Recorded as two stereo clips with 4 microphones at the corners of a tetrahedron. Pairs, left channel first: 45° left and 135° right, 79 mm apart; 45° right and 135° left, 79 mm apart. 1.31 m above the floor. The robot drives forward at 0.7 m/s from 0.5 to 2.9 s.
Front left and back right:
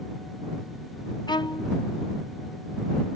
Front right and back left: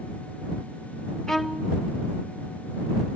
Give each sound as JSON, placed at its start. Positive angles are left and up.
{"t": 1.3, "sound": "a violin", "azimuth_deg": 35, "distance_m": 0.8}